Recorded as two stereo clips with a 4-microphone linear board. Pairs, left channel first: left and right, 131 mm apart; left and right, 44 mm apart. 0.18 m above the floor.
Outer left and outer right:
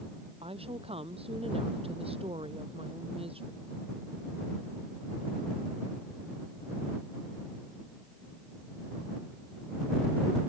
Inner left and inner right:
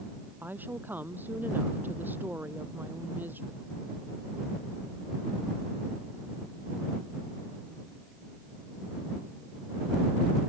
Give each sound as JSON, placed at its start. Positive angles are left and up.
{"t": 0.4, "sound": "a woman speaking", "side_deg": -50}